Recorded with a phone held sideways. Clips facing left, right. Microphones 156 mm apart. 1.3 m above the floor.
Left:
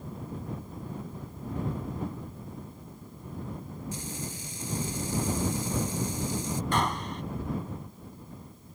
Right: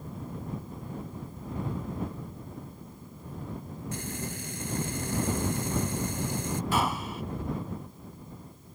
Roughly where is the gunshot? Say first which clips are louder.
Even; centre.